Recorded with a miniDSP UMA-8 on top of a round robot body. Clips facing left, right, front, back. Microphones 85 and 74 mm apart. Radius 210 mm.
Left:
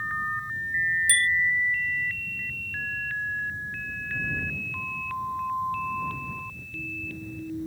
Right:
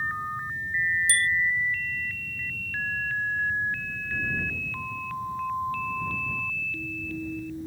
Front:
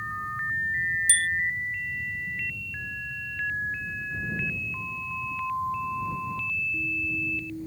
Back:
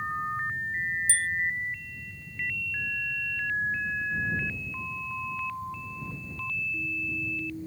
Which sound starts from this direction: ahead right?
A bicycle bell, at 1.1 s.